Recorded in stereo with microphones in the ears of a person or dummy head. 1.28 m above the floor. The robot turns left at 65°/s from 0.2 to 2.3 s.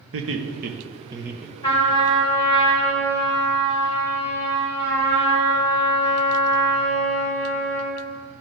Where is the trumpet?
160° left, 3 m; by 8.0 s 115° left, 3 m.